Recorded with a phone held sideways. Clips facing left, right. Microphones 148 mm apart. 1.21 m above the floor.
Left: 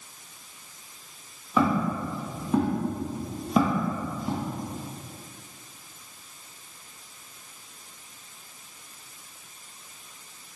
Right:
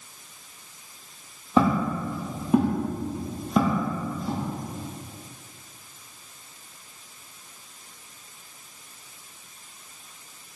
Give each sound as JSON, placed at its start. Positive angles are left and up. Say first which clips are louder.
{"t": 1.6, "sound": "footsteps", "louder": "right 2 dB", "side_deg": -25, "distance_m": 1.9}